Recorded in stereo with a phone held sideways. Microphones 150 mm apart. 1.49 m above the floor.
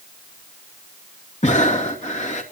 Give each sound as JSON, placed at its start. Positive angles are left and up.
{"t": 1.4, "sound": "breathing", "side_deg": 55, "distance_m": 2.0}